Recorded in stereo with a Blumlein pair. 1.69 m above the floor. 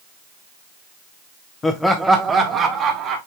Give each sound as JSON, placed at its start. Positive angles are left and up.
{"t": 1.6, "sound": "laughter", "azimuth_deg": 15, "distance_m": 0.9}